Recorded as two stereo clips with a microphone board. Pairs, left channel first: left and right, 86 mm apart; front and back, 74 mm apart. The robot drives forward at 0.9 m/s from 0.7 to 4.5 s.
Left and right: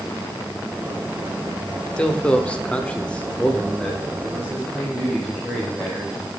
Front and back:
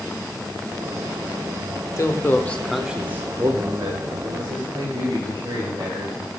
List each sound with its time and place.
2.0 s a man speaking: 15° left, 1.0 m; by 6.3 s 175° left, 1.8 m